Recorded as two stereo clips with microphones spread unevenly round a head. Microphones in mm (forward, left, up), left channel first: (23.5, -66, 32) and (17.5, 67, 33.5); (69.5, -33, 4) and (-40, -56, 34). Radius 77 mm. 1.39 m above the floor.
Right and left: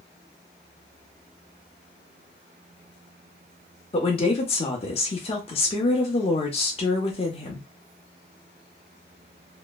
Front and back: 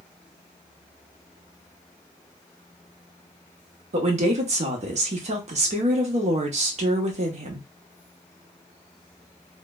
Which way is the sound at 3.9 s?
140° right.